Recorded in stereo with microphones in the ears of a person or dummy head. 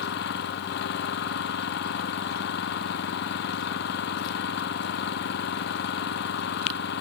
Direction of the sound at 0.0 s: 65° left (ahead or behind).